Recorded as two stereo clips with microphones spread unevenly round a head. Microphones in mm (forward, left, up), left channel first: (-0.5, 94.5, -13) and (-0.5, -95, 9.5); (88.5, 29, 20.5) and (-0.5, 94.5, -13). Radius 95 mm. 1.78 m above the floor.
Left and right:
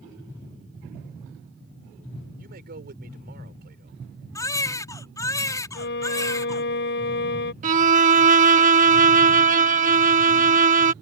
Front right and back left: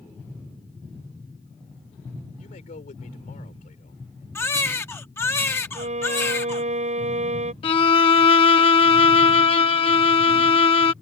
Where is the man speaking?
50° right.